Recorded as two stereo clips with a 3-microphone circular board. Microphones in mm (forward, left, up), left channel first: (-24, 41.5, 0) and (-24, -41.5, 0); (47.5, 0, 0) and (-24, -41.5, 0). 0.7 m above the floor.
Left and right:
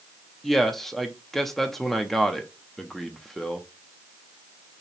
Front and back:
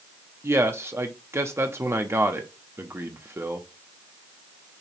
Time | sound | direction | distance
0.4 | a man speaking | 175° left | 0.9 m